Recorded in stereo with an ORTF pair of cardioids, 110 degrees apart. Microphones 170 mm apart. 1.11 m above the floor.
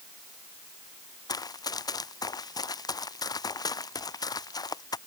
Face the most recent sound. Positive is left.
turn(degrees=20)